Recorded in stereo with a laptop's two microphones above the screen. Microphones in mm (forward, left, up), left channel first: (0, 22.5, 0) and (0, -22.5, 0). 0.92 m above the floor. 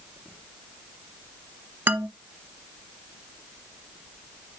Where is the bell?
I don't hear a bell.